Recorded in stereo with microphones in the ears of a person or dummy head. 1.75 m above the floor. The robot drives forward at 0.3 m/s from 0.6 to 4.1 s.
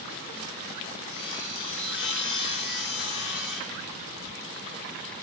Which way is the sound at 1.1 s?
30° left (ahead or behind).